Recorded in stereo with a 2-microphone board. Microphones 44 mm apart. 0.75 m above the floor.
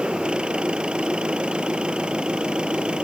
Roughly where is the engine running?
Right.